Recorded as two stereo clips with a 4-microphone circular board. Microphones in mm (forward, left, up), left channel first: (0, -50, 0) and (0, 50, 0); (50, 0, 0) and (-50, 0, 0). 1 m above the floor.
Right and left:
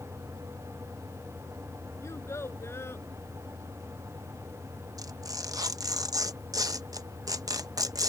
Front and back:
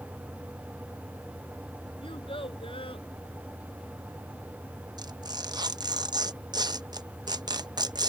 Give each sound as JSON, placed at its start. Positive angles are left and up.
{"t": 2.0, "sound": "a child speaking", "azimuth_deg": -30}
{"t": 5.0, "sound": "tearing paper", "azimuth_deg": 140}